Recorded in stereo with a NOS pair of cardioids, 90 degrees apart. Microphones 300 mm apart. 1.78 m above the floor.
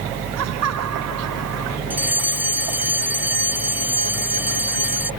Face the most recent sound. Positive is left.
turn(degrees=-5)